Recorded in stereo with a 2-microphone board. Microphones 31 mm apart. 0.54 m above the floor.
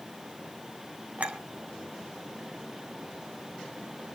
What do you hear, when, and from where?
1.2 s a clink: 55° right (ahead or behind), 3 m